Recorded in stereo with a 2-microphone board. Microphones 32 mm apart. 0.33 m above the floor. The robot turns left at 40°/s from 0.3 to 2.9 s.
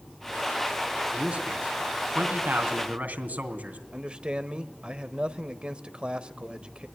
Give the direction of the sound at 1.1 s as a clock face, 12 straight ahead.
1 o'clock.